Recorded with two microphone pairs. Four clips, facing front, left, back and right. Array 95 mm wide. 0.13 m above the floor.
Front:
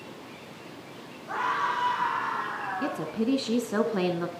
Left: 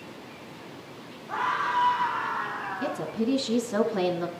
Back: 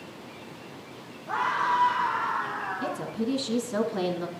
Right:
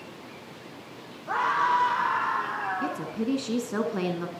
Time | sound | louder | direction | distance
1.3 | a scream | right 4 dB, back 2 dB | 95° right | 8 m
2.8 | a woman speaking | left 1 dB, front 3 dB | 15° right | 1.4 m